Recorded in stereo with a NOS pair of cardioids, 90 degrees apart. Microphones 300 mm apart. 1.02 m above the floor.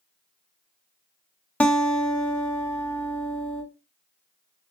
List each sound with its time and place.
1.6 s a guitar: 5° left, 1.1 m